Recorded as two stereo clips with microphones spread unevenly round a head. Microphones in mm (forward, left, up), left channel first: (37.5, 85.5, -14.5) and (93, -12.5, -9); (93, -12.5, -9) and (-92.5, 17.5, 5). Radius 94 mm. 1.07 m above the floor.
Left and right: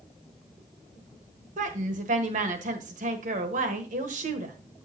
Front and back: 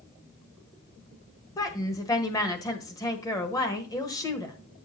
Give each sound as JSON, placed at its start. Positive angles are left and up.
{"t": 1.6, "sound": "a woman speaking", "azimuth_deg": -80, "distance_m": 1.1}